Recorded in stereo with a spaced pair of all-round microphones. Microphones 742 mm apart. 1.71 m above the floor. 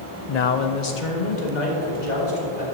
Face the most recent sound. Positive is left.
turn(degrees=65)  # may be behind; listen again after turning